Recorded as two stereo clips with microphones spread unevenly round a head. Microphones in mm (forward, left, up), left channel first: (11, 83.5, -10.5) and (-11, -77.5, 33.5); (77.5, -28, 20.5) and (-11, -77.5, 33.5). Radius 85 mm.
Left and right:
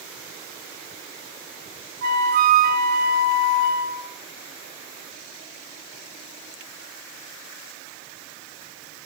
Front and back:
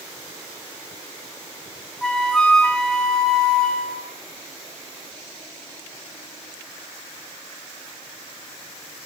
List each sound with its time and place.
2.0 s a flute: 55° right, 3.5 m